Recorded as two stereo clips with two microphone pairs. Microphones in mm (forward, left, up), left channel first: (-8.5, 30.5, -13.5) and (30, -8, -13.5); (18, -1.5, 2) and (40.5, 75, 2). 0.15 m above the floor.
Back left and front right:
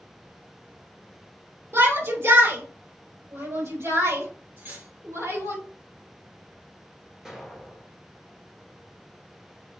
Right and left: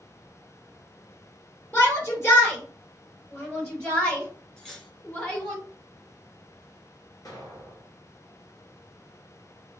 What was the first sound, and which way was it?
A shout, 55° right.